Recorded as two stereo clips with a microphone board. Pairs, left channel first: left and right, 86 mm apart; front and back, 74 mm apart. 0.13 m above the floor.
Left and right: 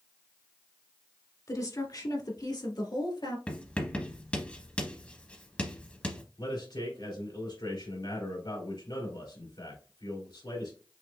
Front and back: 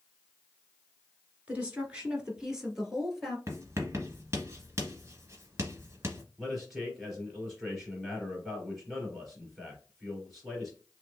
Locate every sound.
1.5 s a woman speaking: 115° left, 1.8 m; by 3.4 s 90° left, 2.5 m
3.5 s writing: 160° left, 1.6 m
6.4 s a man speaking: 90° left, 3 m